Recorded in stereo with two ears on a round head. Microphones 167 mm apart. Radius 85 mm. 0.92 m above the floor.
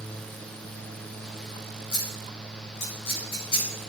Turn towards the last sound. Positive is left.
turn(degrees=60)  # may be behind; listen again after turning